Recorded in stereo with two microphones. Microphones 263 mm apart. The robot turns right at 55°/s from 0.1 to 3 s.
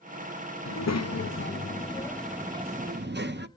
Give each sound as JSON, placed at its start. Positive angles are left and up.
{"t": 0.7, "sound": "a child speaking", "azimuth_deg": 90, "distance_m": 0.7}